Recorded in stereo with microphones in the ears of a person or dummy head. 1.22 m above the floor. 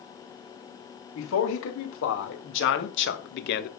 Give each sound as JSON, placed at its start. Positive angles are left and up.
{"t": 1.1, "sound": "a man speaking", "side_deg": 80, "distance_m": 3.5}